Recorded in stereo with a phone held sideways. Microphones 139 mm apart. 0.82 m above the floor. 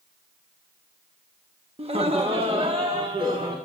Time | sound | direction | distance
1.8 | laughter | 45° right (ahead or behind) | 0.9 m